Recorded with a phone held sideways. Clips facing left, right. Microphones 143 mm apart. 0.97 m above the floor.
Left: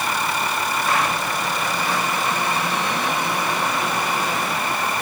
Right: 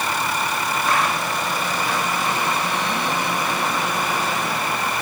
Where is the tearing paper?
No tearing paper in this recording.